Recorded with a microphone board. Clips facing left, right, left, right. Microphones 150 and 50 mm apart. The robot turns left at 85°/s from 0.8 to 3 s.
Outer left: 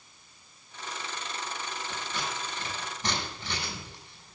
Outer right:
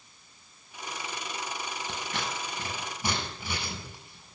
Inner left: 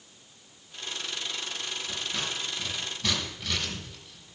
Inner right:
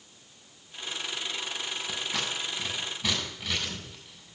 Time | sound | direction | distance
1.9 | scissors | 75° right (ahead or behind) | 5.5 m